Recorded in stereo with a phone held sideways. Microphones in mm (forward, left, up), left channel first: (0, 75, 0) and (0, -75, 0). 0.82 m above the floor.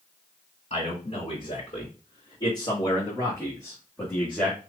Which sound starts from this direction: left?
A man speaking, at 0.7 s.